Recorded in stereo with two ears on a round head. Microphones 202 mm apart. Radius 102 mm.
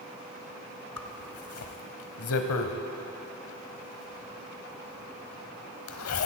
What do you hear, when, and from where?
1.0 s a zipper: 65° left (ahead or behind), 0.9 m